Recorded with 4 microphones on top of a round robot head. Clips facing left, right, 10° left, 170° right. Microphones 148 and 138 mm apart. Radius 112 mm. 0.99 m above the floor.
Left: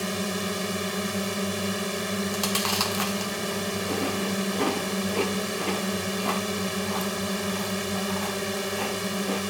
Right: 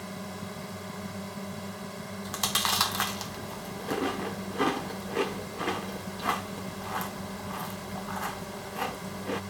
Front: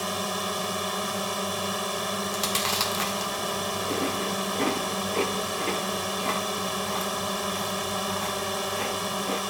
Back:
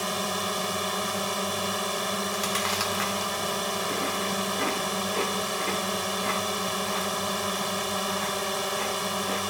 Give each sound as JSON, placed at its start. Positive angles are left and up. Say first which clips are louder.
{"t": 0.0, "sound": "a drone", "louder": "left 10 dB, even", "azimuth_deg": 100}
{"t": 2.2, "sound": "chewing", "louder": "left 6 dB, even", "azimuth_deg": 20}